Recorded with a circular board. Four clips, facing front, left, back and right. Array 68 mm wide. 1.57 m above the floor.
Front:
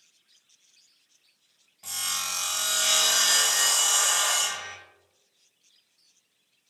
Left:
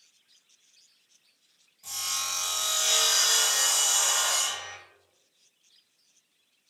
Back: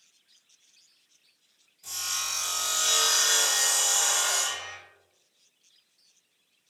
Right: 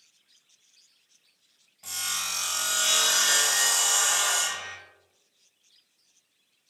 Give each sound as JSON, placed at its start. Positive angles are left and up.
{"t": 1.8, "sound": "sawing", "azimuth_deg": -45, "distance_m": 0.9}